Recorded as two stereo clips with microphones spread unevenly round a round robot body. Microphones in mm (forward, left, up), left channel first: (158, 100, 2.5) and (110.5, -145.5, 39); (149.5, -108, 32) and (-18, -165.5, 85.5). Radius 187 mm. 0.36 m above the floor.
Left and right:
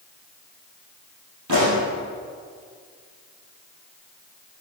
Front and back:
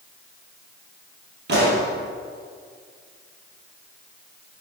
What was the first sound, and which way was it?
A pop, 145° right.